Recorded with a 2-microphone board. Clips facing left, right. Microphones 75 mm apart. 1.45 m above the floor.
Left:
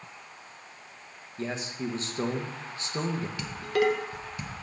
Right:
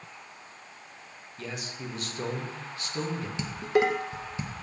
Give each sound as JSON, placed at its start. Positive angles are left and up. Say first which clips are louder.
{"t": 1.4, "sound": "a man speaking", "louder": "left 5 dB", "side_deg": 30, "distance_m": 1.0}
{"t": 3.4, "sound": "dishes clattering", "louder": "right 2 dB", "side_deg": -20, "distance_m": 0.6}